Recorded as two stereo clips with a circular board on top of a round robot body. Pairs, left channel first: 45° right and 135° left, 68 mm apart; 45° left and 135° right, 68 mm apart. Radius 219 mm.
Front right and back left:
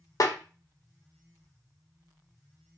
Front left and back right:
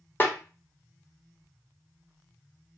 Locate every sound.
0.2 s a snare drum: 15° right, 1.0 m